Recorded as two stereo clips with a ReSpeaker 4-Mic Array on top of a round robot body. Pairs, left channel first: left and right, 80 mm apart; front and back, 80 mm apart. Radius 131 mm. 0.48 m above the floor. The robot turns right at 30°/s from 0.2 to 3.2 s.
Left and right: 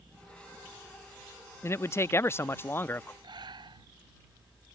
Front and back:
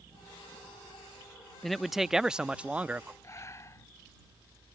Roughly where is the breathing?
Ahead right.